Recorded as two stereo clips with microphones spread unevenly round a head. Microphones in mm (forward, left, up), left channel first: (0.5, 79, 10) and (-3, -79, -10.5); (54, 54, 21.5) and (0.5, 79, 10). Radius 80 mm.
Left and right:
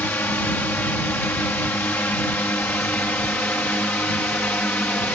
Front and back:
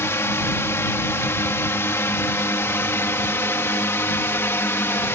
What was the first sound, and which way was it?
A drone, 10° left.